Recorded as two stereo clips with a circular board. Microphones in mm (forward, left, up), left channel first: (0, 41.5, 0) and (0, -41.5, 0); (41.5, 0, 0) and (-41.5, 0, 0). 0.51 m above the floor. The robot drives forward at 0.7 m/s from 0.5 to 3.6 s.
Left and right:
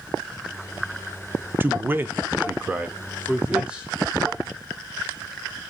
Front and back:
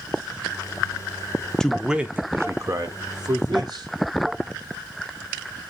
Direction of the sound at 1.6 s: 75° right.